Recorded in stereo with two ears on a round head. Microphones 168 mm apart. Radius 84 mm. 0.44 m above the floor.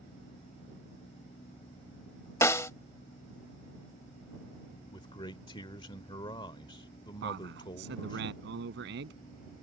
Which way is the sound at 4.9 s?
25° left (ahead or behind).